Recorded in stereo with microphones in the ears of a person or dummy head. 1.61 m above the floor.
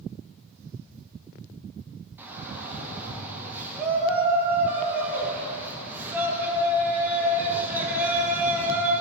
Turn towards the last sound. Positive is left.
turn(degrees=-10)  # may be behind; listen again after turning